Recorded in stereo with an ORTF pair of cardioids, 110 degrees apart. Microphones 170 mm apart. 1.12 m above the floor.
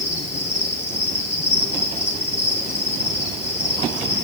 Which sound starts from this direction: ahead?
An insect, at 0.0 s.